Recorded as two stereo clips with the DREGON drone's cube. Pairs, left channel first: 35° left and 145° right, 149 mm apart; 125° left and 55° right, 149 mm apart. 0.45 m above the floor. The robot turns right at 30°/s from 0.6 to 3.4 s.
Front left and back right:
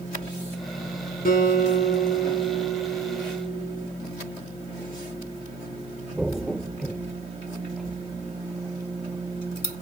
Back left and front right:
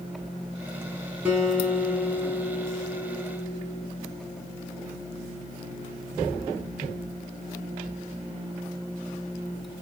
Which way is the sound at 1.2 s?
25° left.